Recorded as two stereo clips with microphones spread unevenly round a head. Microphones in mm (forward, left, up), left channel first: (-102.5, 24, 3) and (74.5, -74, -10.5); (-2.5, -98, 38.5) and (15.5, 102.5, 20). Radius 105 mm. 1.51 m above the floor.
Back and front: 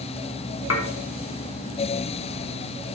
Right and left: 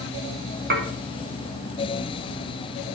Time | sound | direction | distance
0.7 | dishes clattering | 125° left | 2 m